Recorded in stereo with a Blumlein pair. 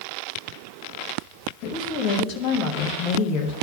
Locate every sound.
1.6 s a woman speaking: 40° left, 1.2 m